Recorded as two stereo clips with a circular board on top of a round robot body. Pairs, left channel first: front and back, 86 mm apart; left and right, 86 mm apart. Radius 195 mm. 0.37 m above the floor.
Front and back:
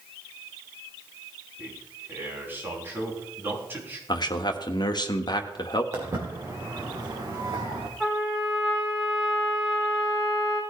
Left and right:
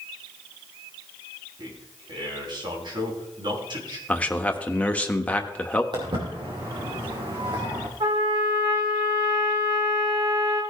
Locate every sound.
1.6 s a man speaking: 115° right, 4.5 m
4.1 s a man speaking: 20° left, 1.3 m
5.9 s footsteps: 125° right, 3.5 m; by 7.9 s 135° right, 2 m
8.0 s a trumpet: 85° right, 4.5 m